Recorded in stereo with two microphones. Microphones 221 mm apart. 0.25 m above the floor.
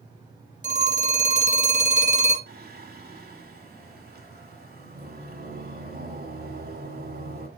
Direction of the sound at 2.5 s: 45° right (ahead or behind).